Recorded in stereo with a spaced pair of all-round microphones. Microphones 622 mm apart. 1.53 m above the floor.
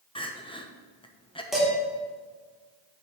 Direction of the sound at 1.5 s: Centre (ahead or behind).